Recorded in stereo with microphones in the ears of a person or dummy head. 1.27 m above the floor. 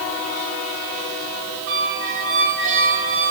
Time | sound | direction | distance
1.7 | a squeak | 50° right (ahead or behind) | 1.6 m